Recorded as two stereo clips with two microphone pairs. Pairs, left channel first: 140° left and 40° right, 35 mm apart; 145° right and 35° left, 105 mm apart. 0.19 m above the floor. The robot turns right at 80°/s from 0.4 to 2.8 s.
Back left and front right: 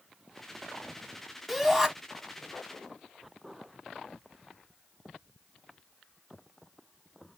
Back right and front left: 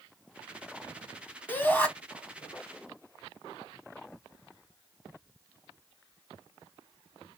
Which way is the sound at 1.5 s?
125° right.